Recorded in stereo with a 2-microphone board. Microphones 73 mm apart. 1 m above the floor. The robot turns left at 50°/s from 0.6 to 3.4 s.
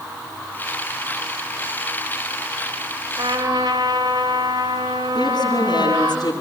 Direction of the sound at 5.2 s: 75° left (ahead or behind).